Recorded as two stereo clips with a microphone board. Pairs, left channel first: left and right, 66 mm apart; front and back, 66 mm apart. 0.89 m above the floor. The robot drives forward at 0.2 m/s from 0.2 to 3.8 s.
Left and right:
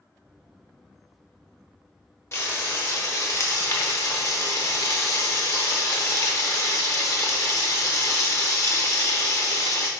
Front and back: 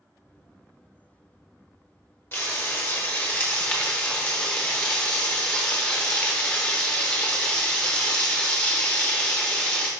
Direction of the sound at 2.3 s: 45° left.